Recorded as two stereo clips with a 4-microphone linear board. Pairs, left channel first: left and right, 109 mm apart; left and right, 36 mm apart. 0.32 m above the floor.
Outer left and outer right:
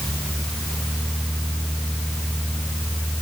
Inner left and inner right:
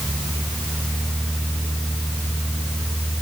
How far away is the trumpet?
I don't hear a trumpet.